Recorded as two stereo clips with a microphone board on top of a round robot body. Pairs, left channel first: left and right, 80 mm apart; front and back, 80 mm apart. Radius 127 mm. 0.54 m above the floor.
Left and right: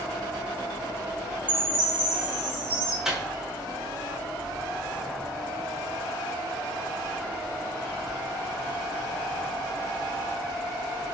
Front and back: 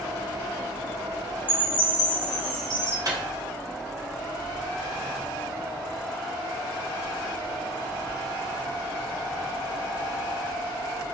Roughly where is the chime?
Right.